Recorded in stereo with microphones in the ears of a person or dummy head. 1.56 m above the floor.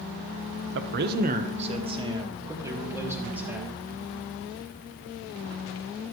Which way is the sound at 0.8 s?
60° right (ahead or behind).